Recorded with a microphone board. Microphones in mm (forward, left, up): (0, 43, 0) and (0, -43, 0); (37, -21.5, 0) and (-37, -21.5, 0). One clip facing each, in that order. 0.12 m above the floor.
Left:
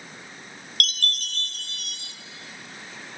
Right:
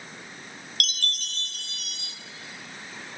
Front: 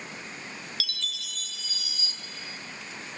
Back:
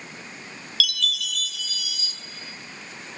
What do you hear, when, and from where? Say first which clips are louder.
0.8 s a chime: left 4 dB, back 9 dB; 55° left, 0.9 m